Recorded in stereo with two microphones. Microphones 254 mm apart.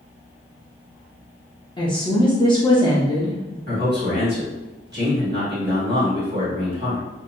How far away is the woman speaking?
About 0.5 m.